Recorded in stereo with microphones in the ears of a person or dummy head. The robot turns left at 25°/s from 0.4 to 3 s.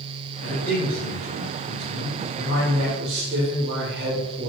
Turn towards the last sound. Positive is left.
turn(degrees=-50)